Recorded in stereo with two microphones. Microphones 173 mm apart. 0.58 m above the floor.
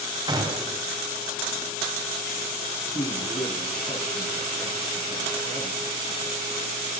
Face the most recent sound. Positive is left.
turn(degrees=40)  # may be behind; listen again after turning